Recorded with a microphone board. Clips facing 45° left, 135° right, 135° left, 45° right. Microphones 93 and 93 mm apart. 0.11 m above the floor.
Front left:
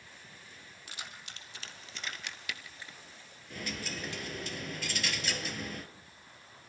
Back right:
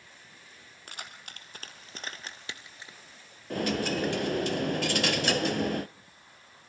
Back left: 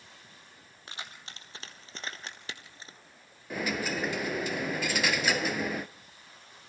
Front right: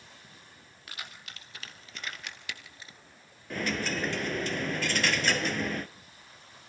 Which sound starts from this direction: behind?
Keys jangling, at 0.9 s.